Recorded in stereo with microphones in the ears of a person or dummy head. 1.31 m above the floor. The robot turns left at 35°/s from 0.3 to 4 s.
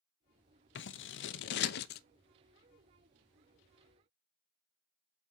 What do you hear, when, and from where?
0.8 s scissors: 50° left (ahead or behind), 0.5 m